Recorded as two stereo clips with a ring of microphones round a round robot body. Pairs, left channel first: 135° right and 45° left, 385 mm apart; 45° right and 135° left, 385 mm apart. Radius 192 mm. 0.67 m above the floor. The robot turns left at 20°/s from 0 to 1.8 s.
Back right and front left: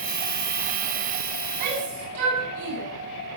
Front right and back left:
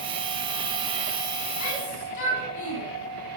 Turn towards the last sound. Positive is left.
turn(degrees=0)